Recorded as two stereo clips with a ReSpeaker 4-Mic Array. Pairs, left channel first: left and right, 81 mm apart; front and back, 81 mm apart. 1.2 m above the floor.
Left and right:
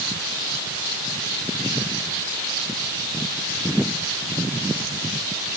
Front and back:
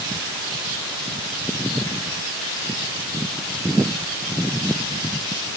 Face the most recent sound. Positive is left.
No sound to turn to.